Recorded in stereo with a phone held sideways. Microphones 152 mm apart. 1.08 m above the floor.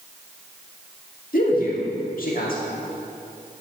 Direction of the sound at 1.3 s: 70° left (ahead or behind).